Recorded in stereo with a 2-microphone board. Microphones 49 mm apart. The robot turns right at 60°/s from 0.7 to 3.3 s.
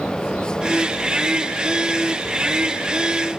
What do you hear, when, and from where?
Only background noise.